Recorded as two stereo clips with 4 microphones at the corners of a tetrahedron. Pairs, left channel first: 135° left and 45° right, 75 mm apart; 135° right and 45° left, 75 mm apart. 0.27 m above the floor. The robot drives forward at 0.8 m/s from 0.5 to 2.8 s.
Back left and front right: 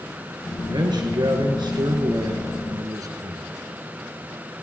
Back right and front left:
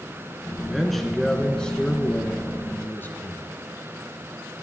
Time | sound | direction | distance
0.7 | a man speaking | 45° right | 3.5 m